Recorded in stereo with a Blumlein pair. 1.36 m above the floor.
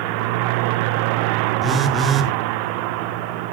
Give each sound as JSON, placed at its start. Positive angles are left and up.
{"t": 1.6, "sound": "a phone buzzing", "azimuth_deg": -15, "distance_m": 1.3}